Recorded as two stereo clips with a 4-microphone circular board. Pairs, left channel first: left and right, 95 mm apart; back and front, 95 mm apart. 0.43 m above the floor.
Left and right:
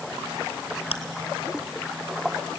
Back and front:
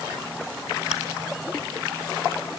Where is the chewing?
80° left, 1.8 m.